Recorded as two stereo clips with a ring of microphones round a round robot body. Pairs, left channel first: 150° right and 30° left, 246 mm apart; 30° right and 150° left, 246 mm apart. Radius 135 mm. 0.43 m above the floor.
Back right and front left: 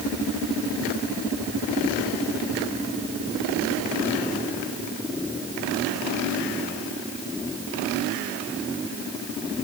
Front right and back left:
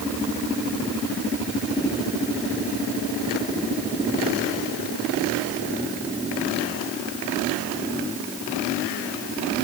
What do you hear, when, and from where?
Only background noise.